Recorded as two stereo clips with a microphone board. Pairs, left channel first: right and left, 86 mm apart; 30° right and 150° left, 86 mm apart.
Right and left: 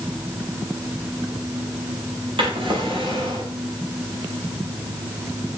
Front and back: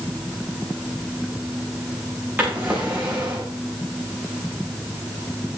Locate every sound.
2.4 s a drawer: 85° left, 6 m